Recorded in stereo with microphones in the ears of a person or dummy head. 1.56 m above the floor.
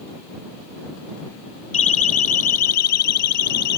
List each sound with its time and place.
1.7 s a siren: 40° left (ahead or behind); by 3.8 s 65° left (ahead or behind)